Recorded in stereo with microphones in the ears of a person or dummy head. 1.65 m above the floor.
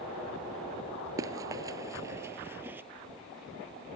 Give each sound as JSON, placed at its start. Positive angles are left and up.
{"t": 1.2, "sound": "running footsteps", "side_deg": -20}